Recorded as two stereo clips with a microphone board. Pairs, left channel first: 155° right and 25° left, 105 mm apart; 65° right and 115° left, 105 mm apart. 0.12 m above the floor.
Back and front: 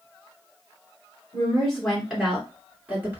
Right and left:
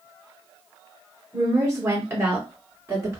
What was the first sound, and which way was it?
A woman speaking, 135° left.